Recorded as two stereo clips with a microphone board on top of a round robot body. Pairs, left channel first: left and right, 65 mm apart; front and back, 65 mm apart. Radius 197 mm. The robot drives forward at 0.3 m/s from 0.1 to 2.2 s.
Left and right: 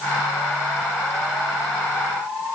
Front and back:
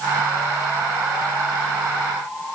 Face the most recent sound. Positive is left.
No sound to turn to.